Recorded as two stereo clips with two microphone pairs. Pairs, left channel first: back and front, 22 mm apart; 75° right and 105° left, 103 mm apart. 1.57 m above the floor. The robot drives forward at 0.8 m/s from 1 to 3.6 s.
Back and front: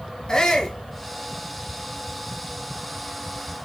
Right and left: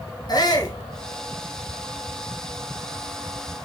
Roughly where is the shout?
Behind right.